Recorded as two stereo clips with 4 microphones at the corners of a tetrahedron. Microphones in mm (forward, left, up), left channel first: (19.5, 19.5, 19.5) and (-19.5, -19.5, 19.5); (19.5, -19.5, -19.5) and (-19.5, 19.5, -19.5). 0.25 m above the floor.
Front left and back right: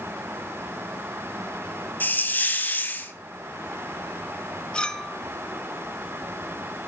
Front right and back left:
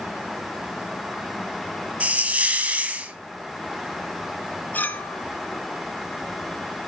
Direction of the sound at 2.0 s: 85° left.